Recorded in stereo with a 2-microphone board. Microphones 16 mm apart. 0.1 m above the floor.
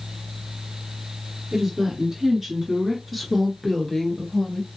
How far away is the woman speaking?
About 1.6 m.